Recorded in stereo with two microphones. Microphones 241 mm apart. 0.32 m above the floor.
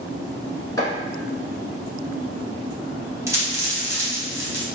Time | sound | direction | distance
0.8 | chopping | 15° left (ahead or behind) | 0.8 m
3.3 | a dropped coin | 10° right (ahead or behind) | 1.0 m